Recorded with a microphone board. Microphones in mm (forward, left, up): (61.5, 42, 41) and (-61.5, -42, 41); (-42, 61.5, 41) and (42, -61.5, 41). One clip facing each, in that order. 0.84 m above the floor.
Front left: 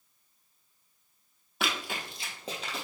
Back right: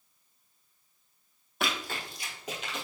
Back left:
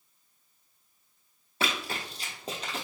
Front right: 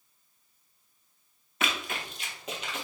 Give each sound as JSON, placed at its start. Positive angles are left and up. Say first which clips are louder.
{"t": 1.6, "sound": "running footsteps", "louder": "even, back left 1 dB", "azimuth_deg": 125, "distance_m": 0.9}